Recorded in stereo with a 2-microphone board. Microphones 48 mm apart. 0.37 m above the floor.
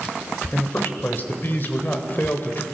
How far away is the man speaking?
About 1.3 m.